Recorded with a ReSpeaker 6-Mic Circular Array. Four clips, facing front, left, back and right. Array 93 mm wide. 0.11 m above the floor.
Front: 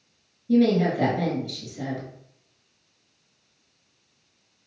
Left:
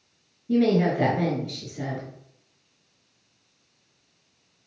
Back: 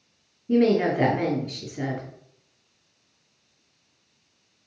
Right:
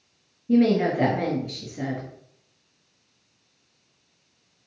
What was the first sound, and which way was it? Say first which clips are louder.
A woman speaking: right 1 dB, even; 165° right.